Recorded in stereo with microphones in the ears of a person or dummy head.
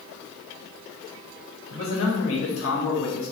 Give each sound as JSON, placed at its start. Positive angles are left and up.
{"t": 1.7, "sound": "a man speaking", "side_deg": 70, "distance_m": 1.8}